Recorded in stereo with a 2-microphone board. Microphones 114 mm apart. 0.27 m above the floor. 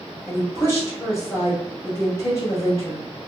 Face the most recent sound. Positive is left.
turn(degrees=25)  # may be behind; listen again after turning